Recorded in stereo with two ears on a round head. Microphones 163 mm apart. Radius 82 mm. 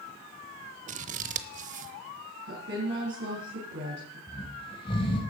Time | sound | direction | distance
0.9 | scissors | 40° right (ahead or behind) | 0.8 m
2.5 | a woman speaking | 65° right (ahead or behind) | 4.5 m
4.3 | snoring | 25° left (ahead or behind) | 3 m